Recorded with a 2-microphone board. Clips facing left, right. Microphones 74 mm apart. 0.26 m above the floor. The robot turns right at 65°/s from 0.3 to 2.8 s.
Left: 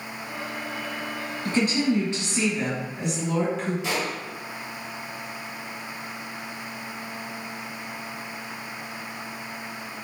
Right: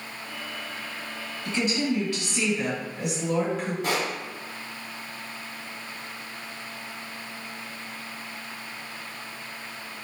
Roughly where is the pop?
Right.